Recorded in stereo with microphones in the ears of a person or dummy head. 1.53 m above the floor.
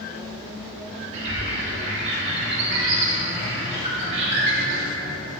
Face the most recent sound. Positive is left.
turn(degrees=-40)  # may be behind; listen again after turning